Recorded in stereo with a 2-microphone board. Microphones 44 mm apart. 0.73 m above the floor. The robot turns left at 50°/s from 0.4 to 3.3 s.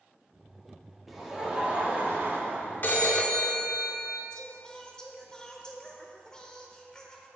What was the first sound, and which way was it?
Laughter, straight ahead.